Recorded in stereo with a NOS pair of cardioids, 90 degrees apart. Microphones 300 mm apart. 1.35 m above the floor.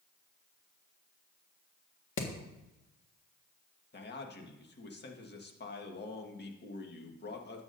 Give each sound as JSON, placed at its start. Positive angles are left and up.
{"t": 2.2, "sound": "hammering", "azimuth_deg": 45, "distance_m": 1.7}
{"t": 3.9, "sound": "a man speaking", "azimuth_deg": 35, "distance_m": 1.7}